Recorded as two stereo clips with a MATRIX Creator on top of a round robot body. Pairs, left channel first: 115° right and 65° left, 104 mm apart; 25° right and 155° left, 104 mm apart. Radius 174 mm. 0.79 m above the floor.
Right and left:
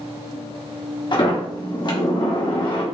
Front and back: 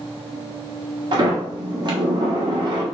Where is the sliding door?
160° right, 1.2 m.